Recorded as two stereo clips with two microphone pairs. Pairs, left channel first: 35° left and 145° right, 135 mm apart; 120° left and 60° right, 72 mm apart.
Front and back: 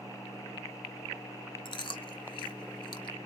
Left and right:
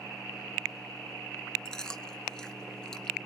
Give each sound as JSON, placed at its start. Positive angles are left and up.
{"t": 1.6, "sound": "chewing", "azimuth_deg": 50, "distance_m": 1.0}